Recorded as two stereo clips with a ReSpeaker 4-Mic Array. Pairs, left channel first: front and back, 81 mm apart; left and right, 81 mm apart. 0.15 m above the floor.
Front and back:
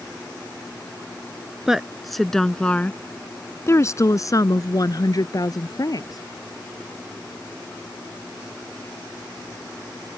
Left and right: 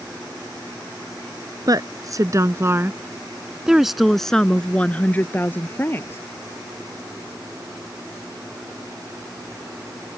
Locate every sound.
1.7 s a woman speaking: 100° right; by 6.2 s 30° left